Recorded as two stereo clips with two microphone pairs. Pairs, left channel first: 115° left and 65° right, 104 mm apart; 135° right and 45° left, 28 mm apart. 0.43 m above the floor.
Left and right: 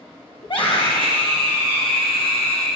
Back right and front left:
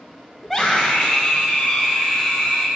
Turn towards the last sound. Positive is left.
turn(degrees=130)